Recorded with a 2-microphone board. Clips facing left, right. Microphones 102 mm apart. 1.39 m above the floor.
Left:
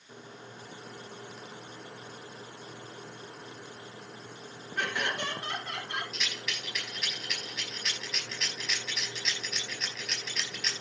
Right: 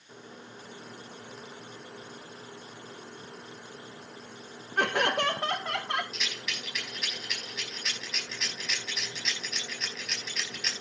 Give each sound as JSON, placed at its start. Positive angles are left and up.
{"t": 4.8, "sound": "laughter", "side_deg": -50, "distance_m": 1.4}
{"t": 6.1, "sound": "a rattle", "side_deg": -5, "distance_m": 5.0}